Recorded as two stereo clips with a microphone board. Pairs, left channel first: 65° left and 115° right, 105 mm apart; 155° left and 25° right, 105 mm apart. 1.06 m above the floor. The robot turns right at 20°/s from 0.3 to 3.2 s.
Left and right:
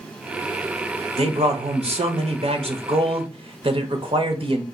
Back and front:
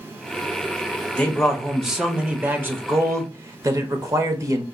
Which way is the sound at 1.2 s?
125° right.